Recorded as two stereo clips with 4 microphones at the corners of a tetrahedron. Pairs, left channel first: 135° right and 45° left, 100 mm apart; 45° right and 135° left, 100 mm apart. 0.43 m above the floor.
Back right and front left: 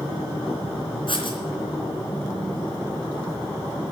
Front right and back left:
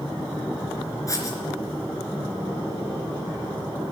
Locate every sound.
1.1 s writing: 100° right, 3 m